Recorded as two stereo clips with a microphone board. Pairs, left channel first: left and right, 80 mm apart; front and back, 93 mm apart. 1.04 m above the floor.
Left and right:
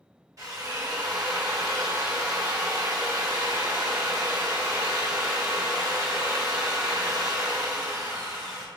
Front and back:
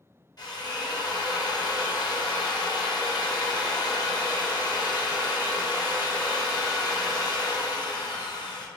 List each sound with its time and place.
0.4 s a drill: 45° right, 0.8 m